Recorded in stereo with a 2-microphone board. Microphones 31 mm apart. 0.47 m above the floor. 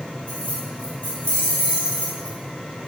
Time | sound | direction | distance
0.3 | keys jangling | 60° left (ahead or behind) | 3.5 m